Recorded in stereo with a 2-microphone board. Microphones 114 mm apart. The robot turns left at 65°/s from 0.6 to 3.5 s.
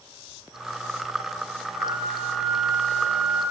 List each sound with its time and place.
1.8 s a flute: 30° right, 6 m; by 3.4 s 140° right, 6 m